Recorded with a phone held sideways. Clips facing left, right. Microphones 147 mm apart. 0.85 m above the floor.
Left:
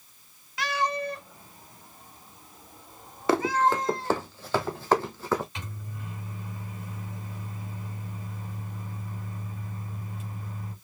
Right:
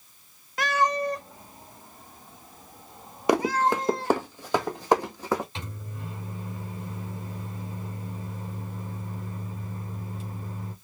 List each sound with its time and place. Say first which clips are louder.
0.6 s a cat meowing: right 4 dB; 50° right (ahead or behind), 0.8 m; by 4.2 s 30° right (ahead or behind), 3.5 m
3.3 s running footsteps: right 1 dB; 15° right (ahead or behind), 1.2 m
5.5 s a microwave: right 2 dB; 35° right (ahead or behind), 3 m